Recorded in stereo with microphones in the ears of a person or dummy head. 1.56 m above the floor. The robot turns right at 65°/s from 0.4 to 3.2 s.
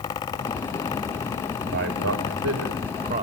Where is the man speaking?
140° right, 5 m; by 3.2 s 40° right, 5 m.